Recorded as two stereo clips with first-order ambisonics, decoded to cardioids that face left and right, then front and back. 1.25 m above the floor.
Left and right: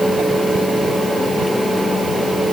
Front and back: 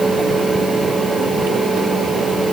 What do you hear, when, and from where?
Only background noise.